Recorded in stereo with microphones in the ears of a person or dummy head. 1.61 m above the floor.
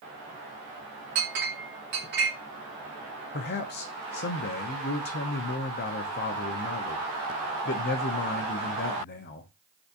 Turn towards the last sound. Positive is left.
turn(degrees=50)  # may be behind; listen again after turning